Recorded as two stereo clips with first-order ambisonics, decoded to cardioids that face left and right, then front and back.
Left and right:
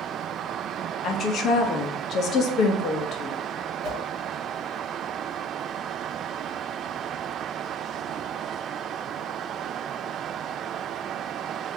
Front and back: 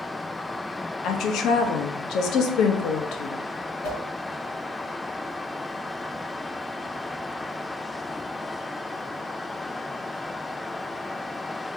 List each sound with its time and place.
1.0 s a woman speaking: 40° left, 0.7 m
3.8 s a whoosh: 40° right, 2.5 m